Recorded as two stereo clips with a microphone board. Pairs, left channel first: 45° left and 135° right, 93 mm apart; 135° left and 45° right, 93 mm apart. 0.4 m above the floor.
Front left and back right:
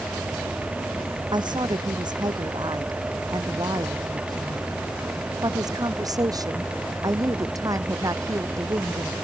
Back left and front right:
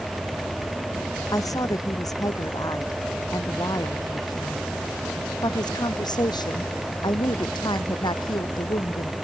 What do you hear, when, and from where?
1.3 s a woman speaking: 175° right; by 9.2 s 170° left